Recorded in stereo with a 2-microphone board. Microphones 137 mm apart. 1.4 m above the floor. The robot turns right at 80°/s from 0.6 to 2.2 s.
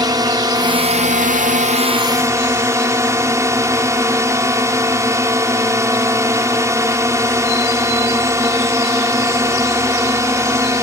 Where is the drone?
150° right; by 10.8 s 20° right.